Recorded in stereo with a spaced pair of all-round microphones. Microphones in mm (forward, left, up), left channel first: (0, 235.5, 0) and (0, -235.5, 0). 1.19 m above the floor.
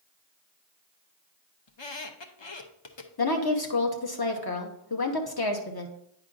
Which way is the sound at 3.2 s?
50° left (ahead or behind).